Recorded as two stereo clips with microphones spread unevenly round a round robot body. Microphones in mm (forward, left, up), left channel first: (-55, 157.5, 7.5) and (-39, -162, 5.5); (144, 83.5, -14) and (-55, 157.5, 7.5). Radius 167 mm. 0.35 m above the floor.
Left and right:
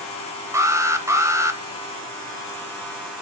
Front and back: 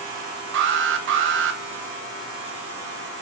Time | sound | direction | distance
0.5 | an alarm | 165° right | 1.0 m